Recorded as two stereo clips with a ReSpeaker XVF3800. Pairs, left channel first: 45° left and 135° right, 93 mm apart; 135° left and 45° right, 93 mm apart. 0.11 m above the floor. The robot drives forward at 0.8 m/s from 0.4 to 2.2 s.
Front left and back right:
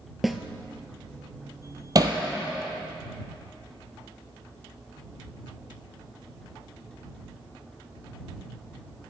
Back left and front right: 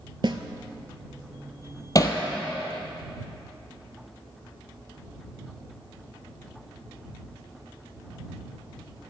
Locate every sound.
0.2 s a snare drum: 50° right, 0.5 m
1.9 s hammering: straight behind, 0.8 m